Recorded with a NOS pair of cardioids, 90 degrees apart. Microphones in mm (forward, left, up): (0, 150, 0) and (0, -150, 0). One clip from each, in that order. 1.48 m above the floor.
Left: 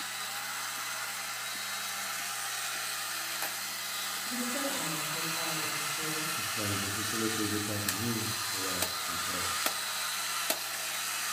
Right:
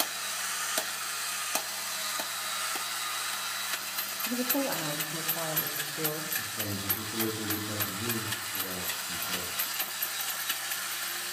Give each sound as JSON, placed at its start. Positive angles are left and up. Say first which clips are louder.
{"t": 4.3, "sound": "a woman speaking", "louder": "right 5 dB", "azimuth_deg": -45, "distance_m": 1.5}
{"t": 6.4, "sound": "a man speaking", "louder": "left 2 dB", "azimuth_deg": 20, "distance_m": 1.1}